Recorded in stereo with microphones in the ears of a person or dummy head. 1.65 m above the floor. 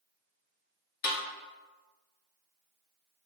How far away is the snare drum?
About 1.1 m.